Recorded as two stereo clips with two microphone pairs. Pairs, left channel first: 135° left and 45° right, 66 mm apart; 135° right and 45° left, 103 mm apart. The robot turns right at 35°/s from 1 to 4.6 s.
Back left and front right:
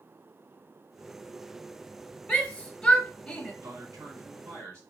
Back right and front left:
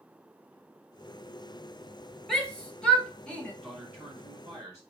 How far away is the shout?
About 0.9 m.